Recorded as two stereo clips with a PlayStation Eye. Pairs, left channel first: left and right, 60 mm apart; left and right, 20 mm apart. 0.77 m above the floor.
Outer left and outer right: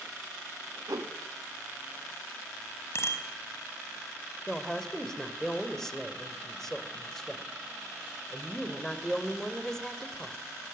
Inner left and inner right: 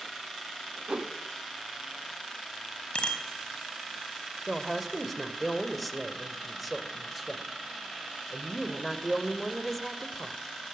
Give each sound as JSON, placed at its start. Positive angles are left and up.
{"t": 0.9, "sound": "a whoosh", "side_deg": -70, "distance_m": 1.4}
{"t": 3.0, "sound": "a bicycle bell", "side_deg": 50, "distance_m": 4.0}
{"t": 4.5, "sound": "a woman speaking", "side_deg": 10, "distance_m": 2.5}